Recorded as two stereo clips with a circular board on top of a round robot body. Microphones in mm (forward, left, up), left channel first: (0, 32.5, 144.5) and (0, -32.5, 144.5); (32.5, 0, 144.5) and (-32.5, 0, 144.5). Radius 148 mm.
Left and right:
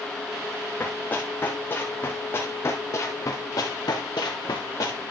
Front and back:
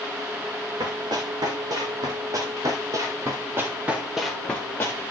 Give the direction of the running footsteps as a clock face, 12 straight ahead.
7 o'clock.